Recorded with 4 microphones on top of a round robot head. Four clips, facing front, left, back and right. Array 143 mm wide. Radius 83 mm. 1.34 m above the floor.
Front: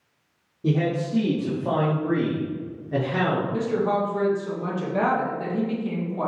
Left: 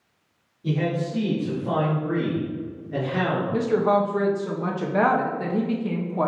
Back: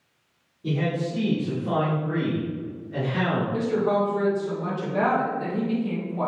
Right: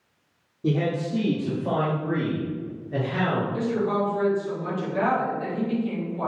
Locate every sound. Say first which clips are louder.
0.6 s a man speaking: right 1 dB, front 3 dB; 50° right, 2 m; by 3.4 s 10° left, 3 m
3.5 s a woman speaking: left 4 dB, even; 85° left, 1.5 m